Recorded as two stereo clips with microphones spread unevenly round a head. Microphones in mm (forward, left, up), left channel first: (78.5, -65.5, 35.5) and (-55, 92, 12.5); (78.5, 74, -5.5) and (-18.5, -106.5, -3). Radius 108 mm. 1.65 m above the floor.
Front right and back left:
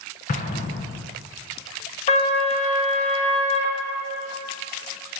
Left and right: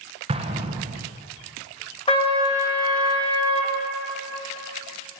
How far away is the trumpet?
About 1.5 m.